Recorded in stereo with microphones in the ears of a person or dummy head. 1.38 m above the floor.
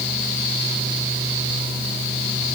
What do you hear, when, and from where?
Only background noise.